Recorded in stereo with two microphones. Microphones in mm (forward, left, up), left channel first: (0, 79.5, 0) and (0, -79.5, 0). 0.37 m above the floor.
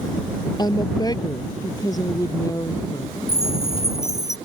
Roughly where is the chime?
Centre.